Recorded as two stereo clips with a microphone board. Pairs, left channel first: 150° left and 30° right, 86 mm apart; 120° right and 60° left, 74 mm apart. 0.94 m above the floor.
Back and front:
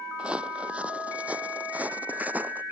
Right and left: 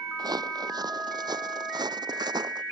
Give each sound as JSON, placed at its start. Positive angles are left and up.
{"t": 0.2, "sound": "footsteps", "azimuth_deg": 45}